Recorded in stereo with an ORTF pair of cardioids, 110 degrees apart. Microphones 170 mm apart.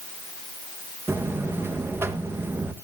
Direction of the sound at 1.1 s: 15° right.